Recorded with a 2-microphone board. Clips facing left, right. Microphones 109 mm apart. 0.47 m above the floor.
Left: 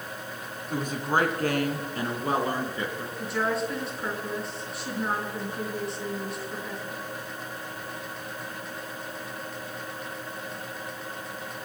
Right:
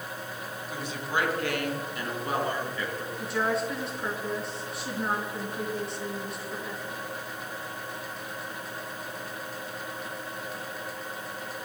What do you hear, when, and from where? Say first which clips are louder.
0.7 s a woman speaking: left 5 dB; 50° left (ahead or behind), 3.5 m; by 3.1 s 30° left (ahead or behind), 5 m
3.2 s a woman speaking: even; centre (ahead or behind), 5 m